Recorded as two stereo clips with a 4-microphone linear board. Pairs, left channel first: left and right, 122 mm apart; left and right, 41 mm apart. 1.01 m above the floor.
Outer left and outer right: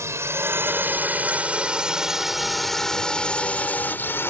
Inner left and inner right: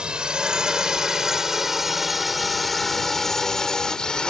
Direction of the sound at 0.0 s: 25° right (ahead or behind).